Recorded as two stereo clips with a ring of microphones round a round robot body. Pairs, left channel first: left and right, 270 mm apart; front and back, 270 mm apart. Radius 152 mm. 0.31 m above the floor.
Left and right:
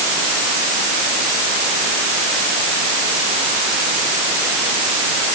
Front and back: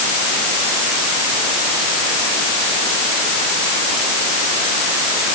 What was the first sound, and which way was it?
Only background noise.